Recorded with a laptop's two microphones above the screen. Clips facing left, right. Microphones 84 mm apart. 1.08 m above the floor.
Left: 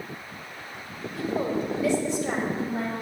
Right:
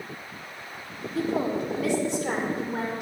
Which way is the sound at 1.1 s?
80° right.